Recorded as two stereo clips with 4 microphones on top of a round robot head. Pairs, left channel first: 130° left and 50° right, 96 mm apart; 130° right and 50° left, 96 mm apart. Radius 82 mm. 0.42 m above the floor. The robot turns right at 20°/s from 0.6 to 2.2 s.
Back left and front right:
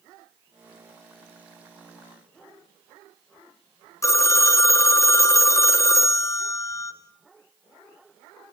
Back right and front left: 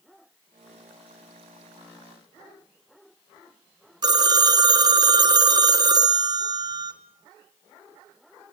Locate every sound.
4.0 s a phone ringing: 80° left, 1.2 m